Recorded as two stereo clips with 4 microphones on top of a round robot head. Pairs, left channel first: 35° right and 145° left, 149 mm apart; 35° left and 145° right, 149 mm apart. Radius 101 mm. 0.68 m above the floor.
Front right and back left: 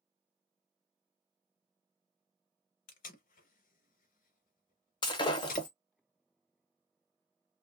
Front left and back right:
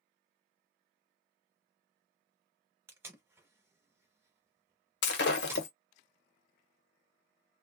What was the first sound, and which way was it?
Tape being pulled, 70° right.